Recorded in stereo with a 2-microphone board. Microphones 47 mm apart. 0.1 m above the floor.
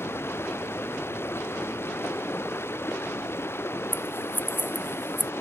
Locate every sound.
0.0 s running water: 55° left (ahead or behind)
3.9 s scissors: 45° left (ahead or behind)